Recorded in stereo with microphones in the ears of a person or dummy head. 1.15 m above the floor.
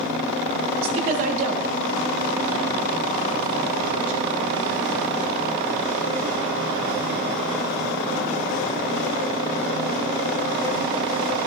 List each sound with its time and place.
0.8 s a woman speaking: 40° right (ahead or behind), 1.7 m; by 4.2 s 85° right, 2.5 m